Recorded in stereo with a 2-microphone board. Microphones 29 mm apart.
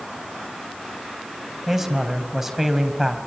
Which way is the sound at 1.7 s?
20° right (ahead or behind).